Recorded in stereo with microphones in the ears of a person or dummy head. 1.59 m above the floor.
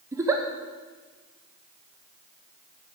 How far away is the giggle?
About 0.5 m.